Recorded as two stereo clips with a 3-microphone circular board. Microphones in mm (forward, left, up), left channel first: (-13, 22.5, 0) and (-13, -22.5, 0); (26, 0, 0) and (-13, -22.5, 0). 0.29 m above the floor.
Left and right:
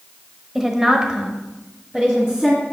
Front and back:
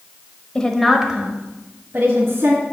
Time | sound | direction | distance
0.6 | a woman speaking | 15° right | 1.0 m